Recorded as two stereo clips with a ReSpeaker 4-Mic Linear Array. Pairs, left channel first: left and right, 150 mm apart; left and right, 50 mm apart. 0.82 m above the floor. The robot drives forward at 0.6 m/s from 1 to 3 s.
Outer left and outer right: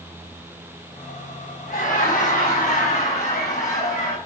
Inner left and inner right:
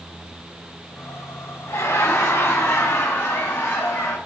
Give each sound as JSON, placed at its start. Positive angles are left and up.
{"t": 1.7, "sound": "laughter", "side_deg": 60, "distance_m": 6.0}